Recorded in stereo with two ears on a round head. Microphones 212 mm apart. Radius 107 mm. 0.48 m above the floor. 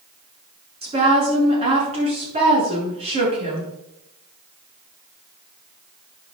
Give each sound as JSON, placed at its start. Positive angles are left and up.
{"t": 0.8, "sound": "a woman speaking", "side_deg": -25, "distance_m": 7.0}